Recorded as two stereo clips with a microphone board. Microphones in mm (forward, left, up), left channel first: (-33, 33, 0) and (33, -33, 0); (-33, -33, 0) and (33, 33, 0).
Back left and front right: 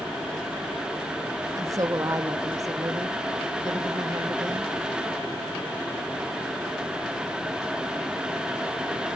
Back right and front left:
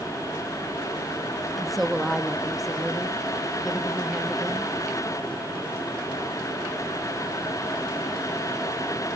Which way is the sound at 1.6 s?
45° right.